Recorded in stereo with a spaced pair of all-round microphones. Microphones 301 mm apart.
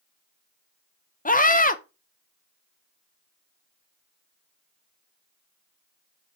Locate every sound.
1.2 s a scream: 30° left (ahead or behind), 0.7 m